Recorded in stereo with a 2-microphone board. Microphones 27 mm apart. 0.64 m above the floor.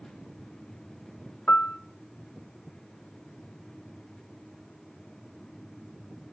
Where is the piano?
55° left (ahead or behind), 0.5 m.